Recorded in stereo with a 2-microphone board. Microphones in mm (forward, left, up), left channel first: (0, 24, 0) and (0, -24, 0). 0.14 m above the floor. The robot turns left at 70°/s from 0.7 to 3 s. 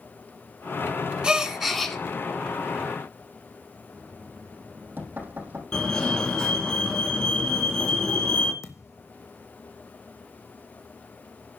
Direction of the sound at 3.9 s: 45° right (ahead or behind).